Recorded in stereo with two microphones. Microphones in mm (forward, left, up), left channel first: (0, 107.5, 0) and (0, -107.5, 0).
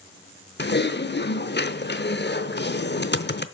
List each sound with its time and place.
0.6 s typing on a keyboard: 55° left (ahead or behind), 0.8 m